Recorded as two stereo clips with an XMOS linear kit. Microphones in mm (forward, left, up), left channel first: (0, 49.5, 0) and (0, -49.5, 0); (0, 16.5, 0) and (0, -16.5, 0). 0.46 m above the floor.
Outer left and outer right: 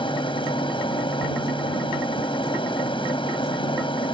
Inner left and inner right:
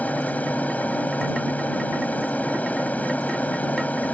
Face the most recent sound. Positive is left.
turn(degrees=60)  # may be behind; listen again after turning